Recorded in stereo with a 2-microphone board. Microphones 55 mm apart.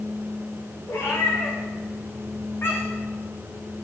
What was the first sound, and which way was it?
A cat meowing, 55° left (ahead or behind).